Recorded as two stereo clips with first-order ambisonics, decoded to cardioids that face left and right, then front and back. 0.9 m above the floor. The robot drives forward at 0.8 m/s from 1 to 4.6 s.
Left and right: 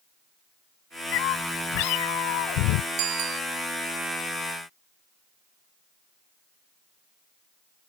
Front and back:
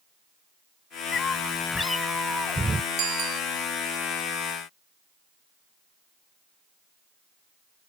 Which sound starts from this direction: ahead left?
A cat meowing, at 1.1 s.